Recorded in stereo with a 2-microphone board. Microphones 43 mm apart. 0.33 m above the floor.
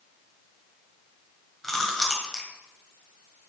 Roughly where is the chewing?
Centre.